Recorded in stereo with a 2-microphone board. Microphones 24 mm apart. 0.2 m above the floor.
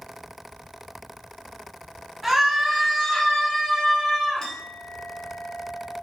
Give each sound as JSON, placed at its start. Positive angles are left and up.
{"t": 2.2, "sound": "a scream", "side_deg": -10, "distance_m": 1.1}
{"t": 4.4, "sound": "a clink", "side_deg": 25, "distance_m": 1.0}